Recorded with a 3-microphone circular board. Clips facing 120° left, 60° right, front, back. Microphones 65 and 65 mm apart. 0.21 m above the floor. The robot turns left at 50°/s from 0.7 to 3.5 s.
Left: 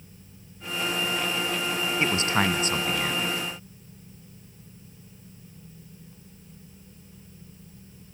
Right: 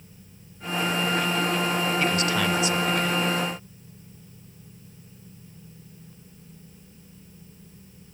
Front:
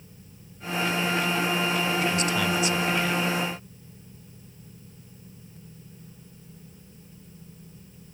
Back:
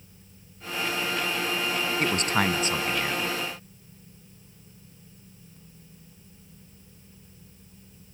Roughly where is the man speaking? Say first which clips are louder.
Even, even; behind.